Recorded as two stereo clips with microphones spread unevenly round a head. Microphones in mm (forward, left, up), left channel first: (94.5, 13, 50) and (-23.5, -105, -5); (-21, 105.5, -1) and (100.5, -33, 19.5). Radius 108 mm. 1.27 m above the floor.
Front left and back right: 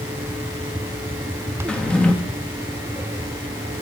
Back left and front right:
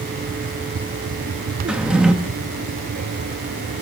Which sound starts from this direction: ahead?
A drawer, at 1.7 s.